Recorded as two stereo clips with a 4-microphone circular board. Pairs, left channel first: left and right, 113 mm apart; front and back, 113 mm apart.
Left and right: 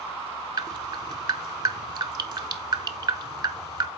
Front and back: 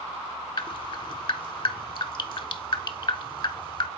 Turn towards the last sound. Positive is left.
turn(degrees=-40)